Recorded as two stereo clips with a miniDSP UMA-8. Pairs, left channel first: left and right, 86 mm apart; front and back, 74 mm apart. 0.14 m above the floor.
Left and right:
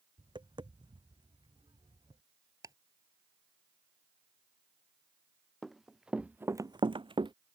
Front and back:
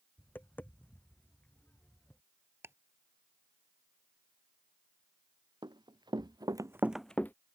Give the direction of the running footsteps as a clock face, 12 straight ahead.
6 o'clock.